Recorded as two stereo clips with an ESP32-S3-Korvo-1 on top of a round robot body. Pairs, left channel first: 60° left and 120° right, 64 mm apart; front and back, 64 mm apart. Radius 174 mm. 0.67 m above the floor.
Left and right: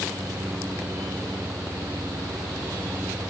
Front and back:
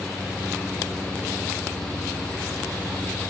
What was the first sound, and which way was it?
Only background noise.